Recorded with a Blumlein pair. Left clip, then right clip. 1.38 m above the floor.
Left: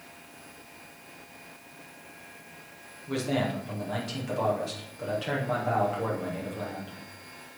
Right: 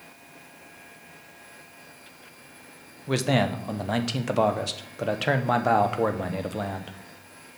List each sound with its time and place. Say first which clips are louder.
3.1 s a man speaking: right 5 dB; 60° right, 0.8 m